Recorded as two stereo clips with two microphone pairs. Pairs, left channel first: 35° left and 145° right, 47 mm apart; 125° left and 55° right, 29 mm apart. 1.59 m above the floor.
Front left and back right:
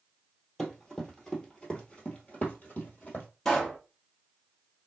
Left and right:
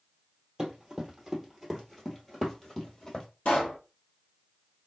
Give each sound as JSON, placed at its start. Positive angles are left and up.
{"t": 0.6, "sound": "running footsteps", "azimuth_deg": -40, "distance_m": 1.7}
{"t": 3.5, "sound": "a pop", "azimuth_deg": 105, "distance_m": 1.3}